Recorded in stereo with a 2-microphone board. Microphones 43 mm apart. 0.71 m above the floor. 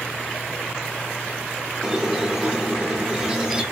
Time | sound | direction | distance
1.8 | a squeak | 15° right (ahead or behind) | 0.8 m